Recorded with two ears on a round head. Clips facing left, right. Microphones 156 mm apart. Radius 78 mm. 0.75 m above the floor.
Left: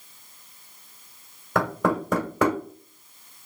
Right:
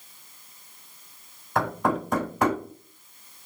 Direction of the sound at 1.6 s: 60° left (ahead or behind).